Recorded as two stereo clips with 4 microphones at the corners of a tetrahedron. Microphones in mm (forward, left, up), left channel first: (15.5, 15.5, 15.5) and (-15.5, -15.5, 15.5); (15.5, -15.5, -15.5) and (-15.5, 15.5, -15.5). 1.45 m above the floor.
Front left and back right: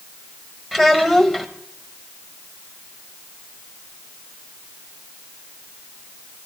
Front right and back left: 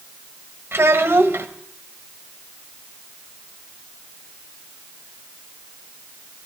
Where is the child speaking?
150° left, 1.1 m.